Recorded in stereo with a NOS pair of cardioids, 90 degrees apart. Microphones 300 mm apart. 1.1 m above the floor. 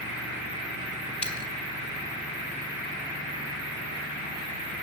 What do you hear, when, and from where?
1.2 s a dropped coin: 5° left, 1.9 m